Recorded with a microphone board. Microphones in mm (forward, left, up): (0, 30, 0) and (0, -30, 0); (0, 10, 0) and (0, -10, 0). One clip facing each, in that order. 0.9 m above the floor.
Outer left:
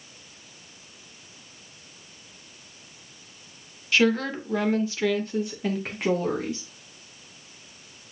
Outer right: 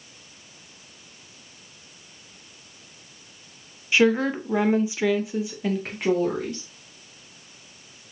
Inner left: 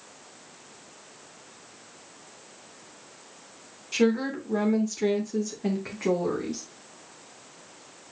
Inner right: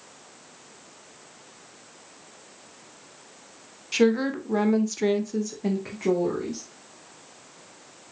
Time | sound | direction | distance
3.9 | a woman speaking | 20° right (ahead or behind) | 1.0 m